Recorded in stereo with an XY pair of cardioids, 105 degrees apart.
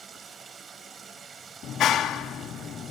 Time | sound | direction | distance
0.0 | running water | 45° right | 8 m
1.6 | a clap | 70° left | 3 m